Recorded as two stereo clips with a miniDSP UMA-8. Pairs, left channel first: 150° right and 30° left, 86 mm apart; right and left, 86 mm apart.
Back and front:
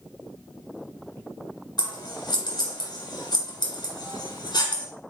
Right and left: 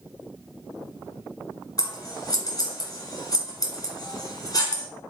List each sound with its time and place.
1.8 s scissors: 130° right, 1.2 m